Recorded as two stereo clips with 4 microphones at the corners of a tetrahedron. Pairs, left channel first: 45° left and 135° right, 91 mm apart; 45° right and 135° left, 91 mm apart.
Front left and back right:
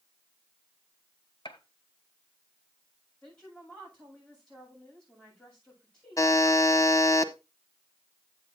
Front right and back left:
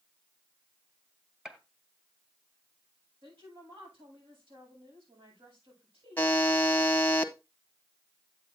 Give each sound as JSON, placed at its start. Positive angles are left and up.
{"t": 1.4, "sound": "a gunshot", "azimuth_deg": 50, "distance_m": 1.1}
{"t": 3.2, "sound": "a woman speaking", "azimuth_deg": 125, "distance_m": 7.5}
{"t": 6.2, "sound": "a buzzer", "azimuth_deg": 15, "distance_m": 1.0}